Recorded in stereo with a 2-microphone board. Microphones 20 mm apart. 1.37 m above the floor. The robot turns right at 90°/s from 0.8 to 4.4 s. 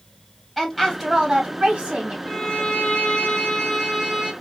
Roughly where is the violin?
Ahead left.